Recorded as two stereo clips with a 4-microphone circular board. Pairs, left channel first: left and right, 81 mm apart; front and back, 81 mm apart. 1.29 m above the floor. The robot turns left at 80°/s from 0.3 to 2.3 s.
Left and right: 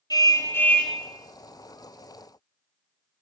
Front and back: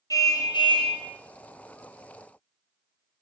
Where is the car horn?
45° left, 4 m; by 1.0 s 5° right, 4 m.